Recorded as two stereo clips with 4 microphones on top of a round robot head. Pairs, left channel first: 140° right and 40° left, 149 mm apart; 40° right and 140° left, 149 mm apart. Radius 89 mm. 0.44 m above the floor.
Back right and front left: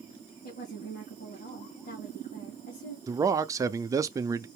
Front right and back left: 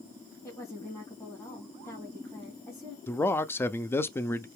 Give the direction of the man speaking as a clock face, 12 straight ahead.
12 o'clock.